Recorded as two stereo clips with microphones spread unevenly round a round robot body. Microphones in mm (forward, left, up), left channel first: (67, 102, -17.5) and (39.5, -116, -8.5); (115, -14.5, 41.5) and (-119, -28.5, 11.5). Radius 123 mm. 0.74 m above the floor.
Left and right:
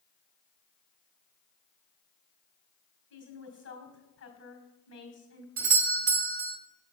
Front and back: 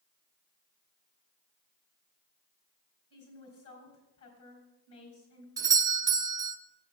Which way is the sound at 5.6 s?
125° right.